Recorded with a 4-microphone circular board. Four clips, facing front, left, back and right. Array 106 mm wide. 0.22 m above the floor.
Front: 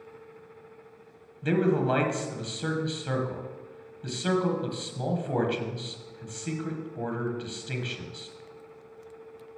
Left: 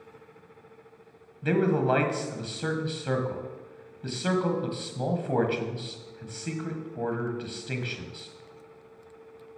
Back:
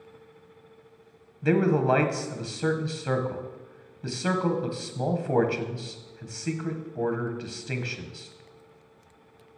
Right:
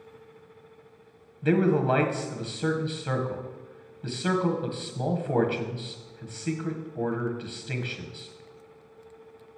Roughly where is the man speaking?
Behind.